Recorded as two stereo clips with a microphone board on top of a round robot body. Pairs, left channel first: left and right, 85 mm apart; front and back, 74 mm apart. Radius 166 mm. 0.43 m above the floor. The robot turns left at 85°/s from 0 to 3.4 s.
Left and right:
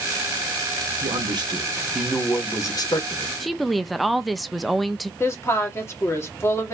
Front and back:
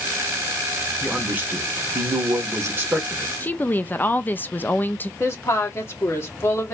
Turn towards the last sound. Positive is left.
turn(degrees=40)